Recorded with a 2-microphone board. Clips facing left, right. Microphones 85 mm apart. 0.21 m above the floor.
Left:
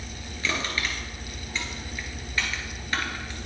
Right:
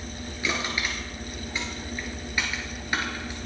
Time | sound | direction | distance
0.4 | crushing | 15° right (ahead or behind) | 2.5 m